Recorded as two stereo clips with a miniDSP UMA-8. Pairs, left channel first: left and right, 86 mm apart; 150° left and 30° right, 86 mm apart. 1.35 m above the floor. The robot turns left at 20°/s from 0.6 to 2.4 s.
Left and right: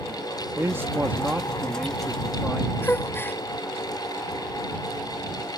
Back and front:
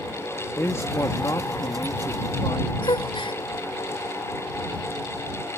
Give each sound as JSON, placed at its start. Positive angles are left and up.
{"t": 0.6, "sound": "a man speaking", "azimuth_deg": -150}
{"t": 2.8, "sound": "a gasp", "azimuth_deg": 155}